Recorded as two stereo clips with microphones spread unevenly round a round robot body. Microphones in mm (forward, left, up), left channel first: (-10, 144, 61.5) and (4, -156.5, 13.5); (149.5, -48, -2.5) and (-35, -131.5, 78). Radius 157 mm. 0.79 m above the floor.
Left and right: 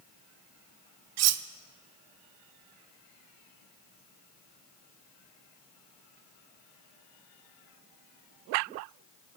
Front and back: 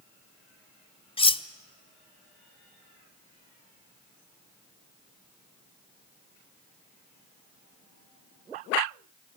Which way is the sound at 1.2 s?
45° right.